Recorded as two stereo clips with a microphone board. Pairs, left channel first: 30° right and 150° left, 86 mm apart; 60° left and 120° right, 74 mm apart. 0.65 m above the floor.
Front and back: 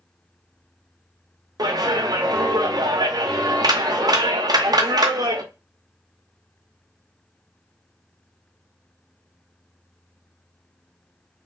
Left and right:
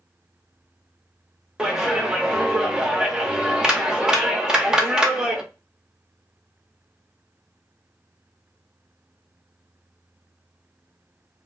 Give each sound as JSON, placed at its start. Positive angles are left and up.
{"t": 1.6, "sound": "a clap", "azimuth_deg": 160, "distance_m": 0.5}